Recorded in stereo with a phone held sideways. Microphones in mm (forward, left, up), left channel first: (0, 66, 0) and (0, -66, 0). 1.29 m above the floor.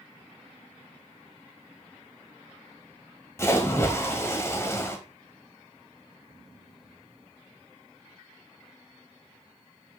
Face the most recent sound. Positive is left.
turn(degrees=20)  # may be behind; listen again after turning